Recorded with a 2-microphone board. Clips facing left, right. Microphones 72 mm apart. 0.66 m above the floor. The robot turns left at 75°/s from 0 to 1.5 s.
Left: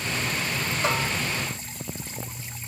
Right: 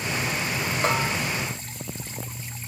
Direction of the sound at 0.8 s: 40° right (ahead or behind).